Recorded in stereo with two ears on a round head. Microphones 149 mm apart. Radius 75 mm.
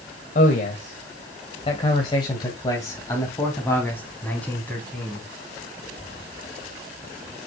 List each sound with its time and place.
0.3 s a man speaking: 55° left (ahead or behind), 1.8 m; by 5.3 s 5° left (ahead or behind), 4 m